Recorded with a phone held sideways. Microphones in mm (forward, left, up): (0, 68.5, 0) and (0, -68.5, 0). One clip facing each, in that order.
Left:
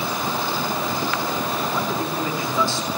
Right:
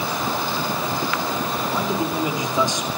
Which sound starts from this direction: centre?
A man speaking, at 1.7 s.